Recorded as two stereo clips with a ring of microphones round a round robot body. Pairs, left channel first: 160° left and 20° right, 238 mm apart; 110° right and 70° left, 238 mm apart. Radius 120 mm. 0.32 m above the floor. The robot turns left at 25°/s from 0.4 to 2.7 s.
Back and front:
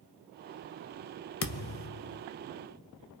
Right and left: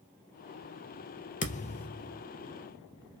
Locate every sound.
1.4 s a thud: 170° right, 0.6 m; by 2.2 s 165° left, 0.6 m